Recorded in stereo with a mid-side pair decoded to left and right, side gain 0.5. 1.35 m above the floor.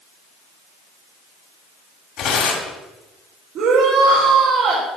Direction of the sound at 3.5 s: 65° right.